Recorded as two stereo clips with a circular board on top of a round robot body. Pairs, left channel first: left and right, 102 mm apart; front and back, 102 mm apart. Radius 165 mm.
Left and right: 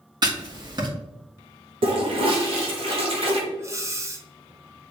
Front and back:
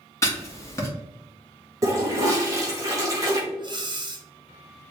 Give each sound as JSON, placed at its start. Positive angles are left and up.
{"t": 0.2, "sound": "writing", "azimuth_deg": -55, "distance_m": 2.0}
{"t": 1.8, "sound": "a toilet flushing", "azimuth_deg": -120, "distance_m": 1.3}
{"t": 3.6, "sound": "breathing", "azimuth_deg": -145, "distance_m": 1.1}